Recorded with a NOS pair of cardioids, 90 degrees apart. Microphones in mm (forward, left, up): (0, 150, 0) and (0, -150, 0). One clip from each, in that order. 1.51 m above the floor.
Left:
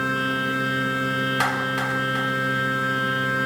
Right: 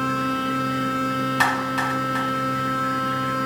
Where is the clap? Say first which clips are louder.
Right 2 dB; 5° right, 5 m.